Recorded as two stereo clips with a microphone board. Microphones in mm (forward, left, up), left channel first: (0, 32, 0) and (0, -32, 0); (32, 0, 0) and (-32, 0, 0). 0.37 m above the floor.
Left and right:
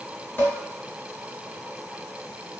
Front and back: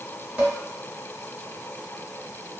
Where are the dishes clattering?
130° left, 0.9 m.